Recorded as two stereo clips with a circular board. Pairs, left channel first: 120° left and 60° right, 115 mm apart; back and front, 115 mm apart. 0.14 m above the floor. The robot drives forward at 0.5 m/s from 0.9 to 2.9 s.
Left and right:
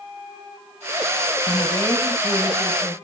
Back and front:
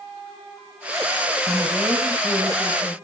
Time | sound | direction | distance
1.5 | a woman speaking | 65° left | 1.6 m